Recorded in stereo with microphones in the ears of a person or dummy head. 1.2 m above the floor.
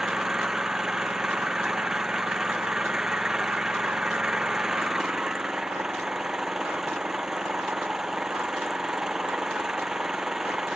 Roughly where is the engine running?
Centre.